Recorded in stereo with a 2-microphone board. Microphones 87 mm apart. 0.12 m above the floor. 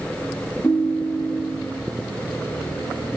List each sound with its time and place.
0.6 s a ringtone: 20° left (ahead or behind), 0.9 m